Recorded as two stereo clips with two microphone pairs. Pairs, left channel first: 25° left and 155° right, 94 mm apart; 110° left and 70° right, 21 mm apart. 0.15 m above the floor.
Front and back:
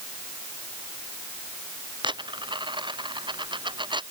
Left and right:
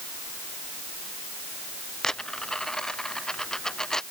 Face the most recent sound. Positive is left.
turn(degrees=175)